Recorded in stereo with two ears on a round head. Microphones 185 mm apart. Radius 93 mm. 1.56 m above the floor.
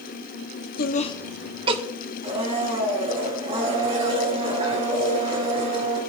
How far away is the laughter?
About 1.0 m.